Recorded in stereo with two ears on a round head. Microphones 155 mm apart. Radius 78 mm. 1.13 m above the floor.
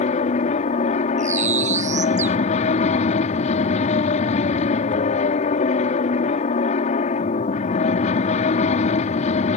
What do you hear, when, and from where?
0.0 s an aircraft: 40° left (ahead or behind)
1.2 s a bird: 45° right (ahead or behind)